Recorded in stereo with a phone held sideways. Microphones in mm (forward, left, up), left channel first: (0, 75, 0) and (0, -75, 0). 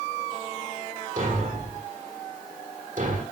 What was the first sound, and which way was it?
A thud, 60° right (ahead or behind).